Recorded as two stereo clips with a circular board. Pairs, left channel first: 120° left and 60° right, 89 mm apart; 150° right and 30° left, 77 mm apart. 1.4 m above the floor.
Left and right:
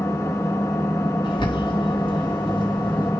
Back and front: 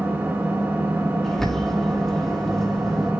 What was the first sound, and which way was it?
An engine running, 85° left.